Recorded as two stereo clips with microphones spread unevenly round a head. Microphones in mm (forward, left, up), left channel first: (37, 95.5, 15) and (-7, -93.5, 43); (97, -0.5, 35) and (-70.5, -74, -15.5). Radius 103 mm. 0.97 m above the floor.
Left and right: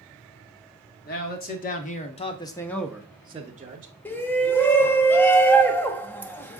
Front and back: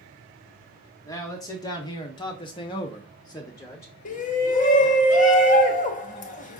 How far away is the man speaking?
About 1.4 m.